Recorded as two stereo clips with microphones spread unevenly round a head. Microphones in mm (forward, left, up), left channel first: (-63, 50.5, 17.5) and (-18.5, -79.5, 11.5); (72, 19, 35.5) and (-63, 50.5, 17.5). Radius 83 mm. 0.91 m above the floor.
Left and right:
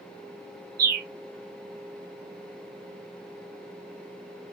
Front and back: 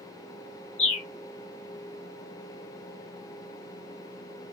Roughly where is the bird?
Ahead right.